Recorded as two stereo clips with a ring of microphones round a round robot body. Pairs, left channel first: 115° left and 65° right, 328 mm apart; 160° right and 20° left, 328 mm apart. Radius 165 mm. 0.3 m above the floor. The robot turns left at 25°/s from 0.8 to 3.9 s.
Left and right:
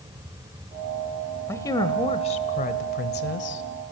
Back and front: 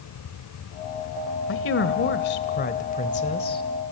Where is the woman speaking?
170° right, 1.4 m; by 3.6 s 135° left, 1.4 m.